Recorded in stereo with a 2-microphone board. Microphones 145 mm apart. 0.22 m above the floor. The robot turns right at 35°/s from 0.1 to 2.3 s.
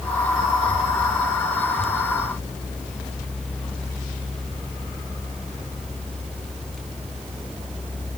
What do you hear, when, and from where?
Only background noise.